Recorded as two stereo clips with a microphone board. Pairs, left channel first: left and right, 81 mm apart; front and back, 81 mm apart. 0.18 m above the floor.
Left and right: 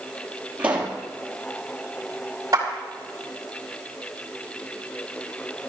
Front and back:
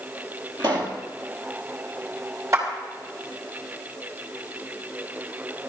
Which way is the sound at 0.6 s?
165° right.